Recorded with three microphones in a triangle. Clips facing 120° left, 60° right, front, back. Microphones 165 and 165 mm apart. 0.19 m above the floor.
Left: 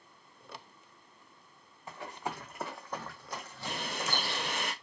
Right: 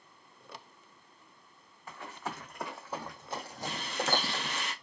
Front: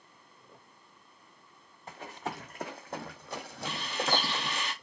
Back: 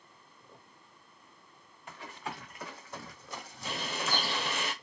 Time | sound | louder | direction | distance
1.9 | running footsteps | left 2 dB, front 3 dB | 50° left | 1.1 m
3.6 | a bird | right 3 dB, front 3 dB | 145° left | 0.7 m